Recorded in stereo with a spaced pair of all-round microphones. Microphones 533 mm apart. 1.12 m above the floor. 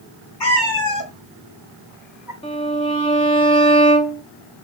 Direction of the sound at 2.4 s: 10° left (ahead or behind).